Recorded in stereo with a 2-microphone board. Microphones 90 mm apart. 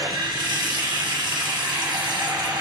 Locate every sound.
0.0 s running water: 45° right (ahead or behind), 0.9 m